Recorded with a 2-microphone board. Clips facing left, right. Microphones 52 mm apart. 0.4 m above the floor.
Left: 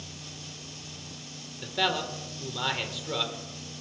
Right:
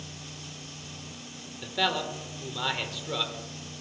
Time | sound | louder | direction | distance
1.6 | a man speaking | even | centre (ahead or behind) | 1.4 m